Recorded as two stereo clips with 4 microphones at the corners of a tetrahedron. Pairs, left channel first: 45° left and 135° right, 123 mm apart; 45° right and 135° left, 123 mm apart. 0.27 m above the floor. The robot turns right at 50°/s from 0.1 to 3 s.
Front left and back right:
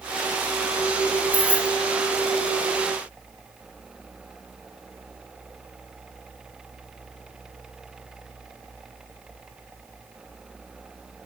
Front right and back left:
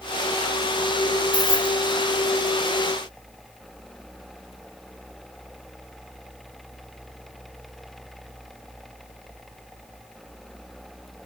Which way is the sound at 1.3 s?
105° left.